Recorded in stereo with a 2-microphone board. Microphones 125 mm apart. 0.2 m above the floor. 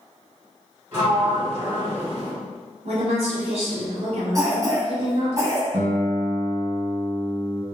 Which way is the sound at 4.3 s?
30° right (ahead or behind).